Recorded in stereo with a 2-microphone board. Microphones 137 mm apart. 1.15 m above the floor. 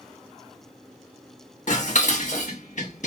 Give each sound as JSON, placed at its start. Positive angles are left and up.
{"t": 1.7, "sound": "dishes clattering", "side_deg": 65, "distance_m": 1.2}